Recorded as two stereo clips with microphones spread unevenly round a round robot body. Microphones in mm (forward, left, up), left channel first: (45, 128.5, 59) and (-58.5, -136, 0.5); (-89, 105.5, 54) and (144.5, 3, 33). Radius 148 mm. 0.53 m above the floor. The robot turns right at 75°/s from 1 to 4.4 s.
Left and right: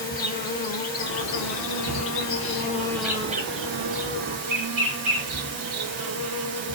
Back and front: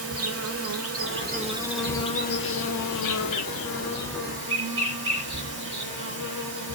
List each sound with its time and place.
0.0 s an insect: 10° left, 4 m; by 6.8 s 95° right, 4 m